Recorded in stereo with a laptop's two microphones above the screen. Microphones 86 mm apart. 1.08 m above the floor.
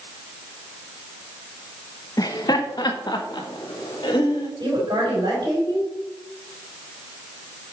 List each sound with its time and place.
2.2 s laughter: 45° left (ahead or behind), 1.0 m; by 4.5 s 65° left (ahead or behind), 2.5 m
4.6 s a woman speaking: 60° right (ahead or behind), 4 m